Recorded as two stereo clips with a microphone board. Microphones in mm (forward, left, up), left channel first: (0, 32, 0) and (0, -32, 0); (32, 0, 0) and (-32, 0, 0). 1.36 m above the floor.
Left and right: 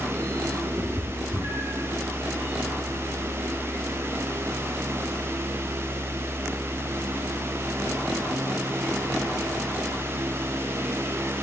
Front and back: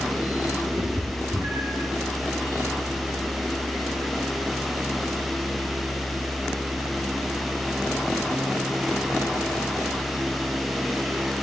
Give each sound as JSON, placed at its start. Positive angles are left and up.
{"t": 0.8, "sound": "a cat meowing", "azimuth_deg": -130, "distance_m": 4.0}